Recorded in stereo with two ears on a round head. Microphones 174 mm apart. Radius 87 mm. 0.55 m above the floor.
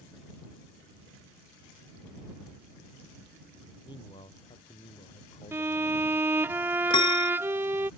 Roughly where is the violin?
Centre.